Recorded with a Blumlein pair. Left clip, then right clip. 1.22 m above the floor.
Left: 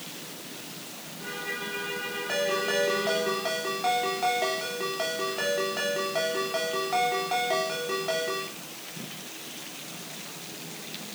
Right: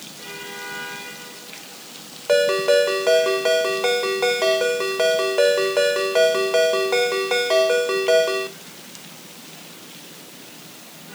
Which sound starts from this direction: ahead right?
A ringtone, at 2.3 s.